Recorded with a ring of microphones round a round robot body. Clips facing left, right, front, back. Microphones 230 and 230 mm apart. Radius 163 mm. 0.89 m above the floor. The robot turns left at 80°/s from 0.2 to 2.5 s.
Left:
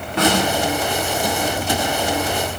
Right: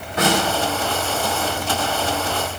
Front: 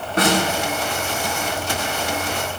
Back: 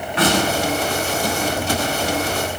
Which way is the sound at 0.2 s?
50° left.